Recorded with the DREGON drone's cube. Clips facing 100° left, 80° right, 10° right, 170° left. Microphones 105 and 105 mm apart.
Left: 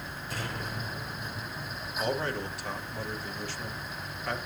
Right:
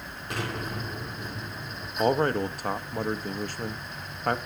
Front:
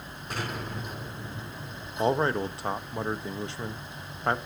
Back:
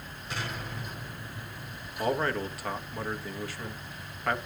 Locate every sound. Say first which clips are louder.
0.3 s an explosion: right 5 dB, front 3 dB; 55° right, 3.5 m
2.0 s a man speaking: right 8 dB, front 4 dB; 70° right, 0.9 m